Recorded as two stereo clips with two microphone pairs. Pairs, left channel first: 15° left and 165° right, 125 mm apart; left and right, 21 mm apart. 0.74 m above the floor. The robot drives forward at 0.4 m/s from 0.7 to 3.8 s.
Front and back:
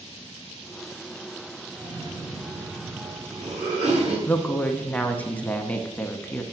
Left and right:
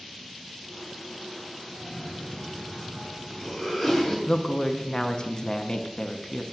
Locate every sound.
1.8 s a cough: 160° right, 1.0 m; by 4.2 s 170° right, 1.7 m
4.3 s a woman speaking: 85° left, 0.7 m